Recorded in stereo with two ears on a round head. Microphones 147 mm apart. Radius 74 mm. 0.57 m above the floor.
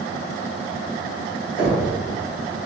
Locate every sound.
1.6 s knocking: 60° left (ahead or behind), 1.8 m